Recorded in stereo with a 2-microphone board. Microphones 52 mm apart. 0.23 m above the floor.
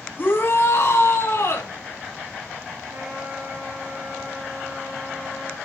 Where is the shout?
40° left (ahead or behind), 1.8 m; by 1.7 s 60° left (ahead or behind), 3 m.